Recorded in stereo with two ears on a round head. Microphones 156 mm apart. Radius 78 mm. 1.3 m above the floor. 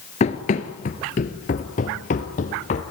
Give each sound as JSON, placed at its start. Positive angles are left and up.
{"t": 0.2, "sound": "running footsteps", "side_deg": 40, "distance_m": 1.6}